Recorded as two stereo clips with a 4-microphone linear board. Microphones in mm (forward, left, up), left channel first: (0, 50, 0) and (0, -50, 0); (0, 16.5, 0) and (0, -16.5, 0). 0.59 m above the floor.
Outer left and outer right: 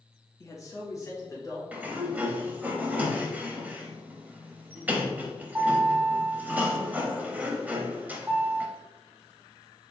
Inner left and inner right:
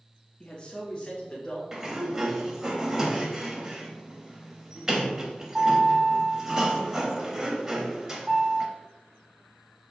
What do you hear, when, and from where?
0.4 s a man speaking: 25° left (ahead or behind), 0.7 m; by 1.6 s 30° left (ahead or behind), 1.4 m
1.7 s a sliding door: 15° right (ahead or behind), 0.6 m